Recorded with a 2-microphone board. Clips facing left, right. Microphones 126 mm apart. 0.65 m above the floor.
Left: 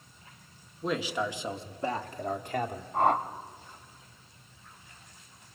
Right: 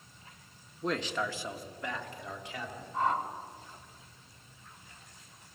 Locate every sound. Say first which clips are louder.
0.8 s a man speaking: left 2 dB; centre (ahead or behind), 1.3 m; by 2.8 s 55° left (ahead or behind), 1.8 m
2.9 s a whoosh: left 5 dB; 65° left (ahead or behind), 0.9 m